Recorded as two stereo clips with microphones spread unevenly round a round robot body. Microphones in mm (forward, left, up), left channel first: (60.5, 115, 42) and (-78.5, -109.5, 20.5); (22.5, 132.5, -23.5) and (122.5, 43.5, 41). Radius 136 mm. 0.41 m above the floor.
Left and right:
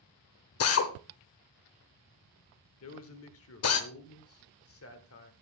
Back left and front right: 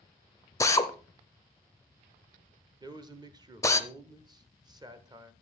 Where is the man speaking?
35° left, 1.1 m.